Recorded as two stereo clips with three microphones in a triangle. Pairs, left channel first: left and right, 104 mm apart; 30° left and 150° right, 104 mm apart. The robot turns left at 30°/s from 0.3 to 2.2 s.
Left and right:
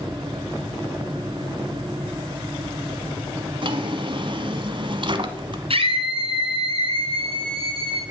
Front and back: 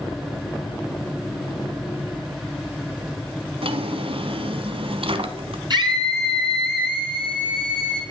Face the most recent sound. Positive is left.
turn(degrees=-110)